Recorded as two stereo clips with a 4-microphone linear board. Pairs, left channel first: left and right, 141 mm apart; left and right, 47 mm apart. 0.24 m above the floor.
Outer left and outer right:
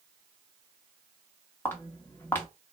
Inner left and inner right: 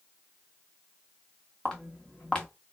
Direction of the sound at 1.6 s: 15° left (ahead or behind).